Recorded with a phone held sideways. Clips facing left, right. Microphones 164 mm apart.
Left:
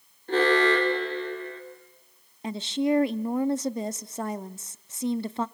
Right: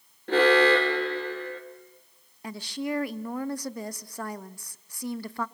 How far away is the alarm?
About 2.5 m.